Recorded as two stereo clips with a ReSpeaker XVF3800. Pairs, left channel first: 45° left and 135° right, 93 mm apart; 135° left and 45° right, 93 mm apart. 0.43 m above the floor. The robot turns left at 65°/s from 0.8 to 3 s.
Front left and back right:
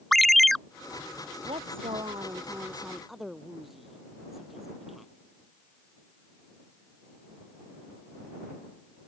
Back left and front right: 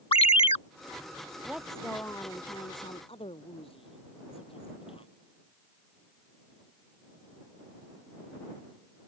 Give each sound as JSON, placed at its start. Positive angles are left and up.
{"t": 0.1, "sound": "a ringtone", "azimuth_deg": 135}
{"t": 1.4, "sound": "a woman speaking", "azimuth_deg": -120}